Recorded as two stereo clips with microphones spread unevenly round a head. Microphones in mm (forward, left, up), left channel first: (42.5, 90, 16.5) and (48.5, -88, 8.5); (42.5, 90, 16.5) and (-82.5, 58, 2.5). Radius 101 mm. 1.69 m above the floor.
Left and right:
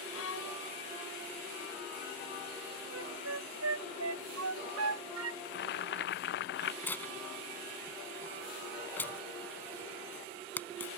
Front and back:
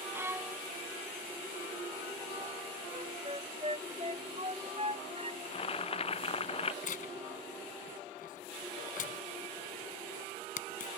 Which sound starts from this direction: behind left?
A violin, at 0.1 s.